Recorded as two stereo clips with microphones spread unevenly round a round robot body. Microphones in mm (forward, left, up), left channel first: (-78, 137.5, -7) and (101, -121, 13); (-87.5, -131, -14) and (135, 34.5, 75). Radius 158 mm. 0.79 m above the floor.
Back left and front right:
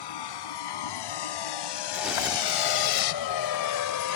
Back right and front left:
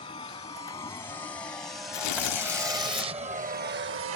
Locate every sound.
0.0 s a vehicle: 140° left; by 4.2 s 85° left
1.9 s tearing paper: 145° right